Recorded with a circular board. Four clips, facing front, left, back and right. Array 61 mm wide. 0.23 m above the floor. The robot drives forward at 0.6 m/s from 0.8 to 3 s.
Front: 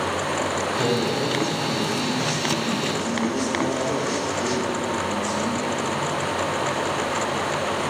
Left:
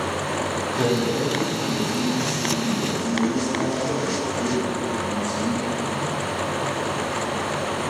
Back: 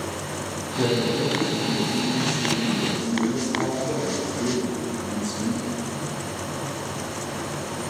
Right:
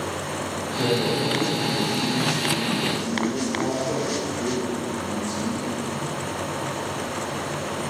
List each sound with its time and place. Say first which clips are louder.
0.8 s a man speaking: even, back 3 dB; 130° left, 1.6 m; by 5.7 s 160° left, 2.5 m